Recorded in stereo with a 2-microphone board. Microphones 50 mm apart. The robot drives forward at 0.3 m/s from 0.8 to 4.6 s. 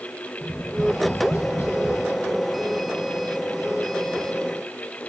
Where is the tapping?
65° left (ahead or behind), 7.5 m.